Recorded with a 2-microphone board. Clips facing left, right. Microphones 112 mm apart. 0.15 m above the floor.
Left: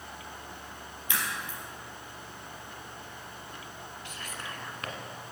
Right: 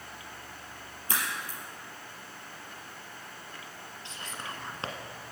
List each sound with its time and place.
1.1 s a crack: 40° right (ahead or behind), 3.5 m
4.0 s whispering: 30° right (ahead or behind), 1.3 m